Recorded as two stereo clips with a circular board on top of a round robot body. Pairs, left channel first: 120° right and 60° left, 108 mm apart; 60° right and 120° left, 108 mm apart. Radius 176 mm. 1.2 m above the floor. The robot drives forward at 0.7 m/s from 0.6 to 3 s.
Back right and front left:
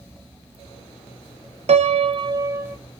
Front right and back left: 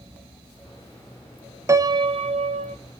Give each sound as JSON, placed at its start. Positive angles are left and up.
{"t": 1.7, "sound": "a piano", "azimuth_deg": 60, "distance_m": 0.6}